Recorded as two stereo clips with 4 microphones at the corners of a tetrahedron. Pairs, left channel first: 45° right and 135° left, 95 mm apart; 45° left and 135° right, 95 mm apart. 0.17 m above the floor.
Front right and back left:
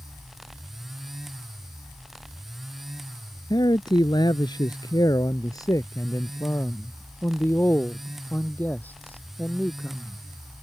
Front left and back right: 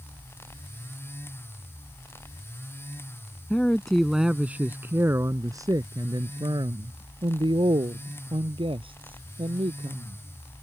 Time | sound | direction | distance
3.5 | a man speaking | 30° right | ?